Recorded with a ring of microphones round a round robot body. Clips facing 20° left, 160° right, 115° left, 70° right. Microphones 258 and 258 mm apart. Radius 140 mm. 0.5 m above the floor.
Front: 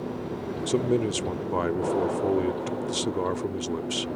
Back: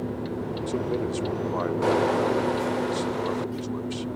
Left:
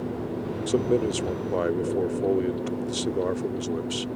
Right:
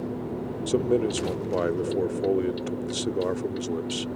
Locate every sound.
0.7 s a man speaking: 20° left